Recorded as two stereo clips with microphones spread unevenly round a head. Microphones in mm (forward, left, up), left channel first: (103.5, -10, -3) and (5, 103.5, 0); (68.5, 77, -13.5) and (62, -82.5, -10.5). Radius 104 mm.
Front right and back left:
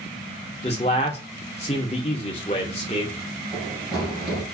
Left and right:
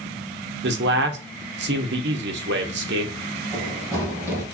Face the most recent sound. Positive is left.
turn(degrees=-145)